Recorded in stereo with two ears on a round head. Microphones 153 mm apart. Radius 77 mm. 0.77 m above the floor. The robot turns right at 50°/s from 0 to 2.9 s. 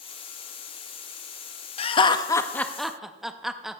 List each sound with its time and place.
1.8 s laughter: 35° left (ahead or behind), 0.5 m; by 3.8 s centre (ahead or behind), 0.5 m